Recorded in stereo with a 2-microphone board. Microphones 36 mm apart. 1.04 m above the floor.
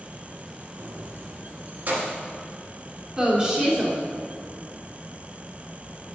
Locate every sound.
0.8 s keys jangling: 75° right (ahead or behind), 0.6 m; by 2.2 s 40° right (ahead or behind), 1.3 m
3.2 s a woman speaking: 20° right (ahead or behind), 2 m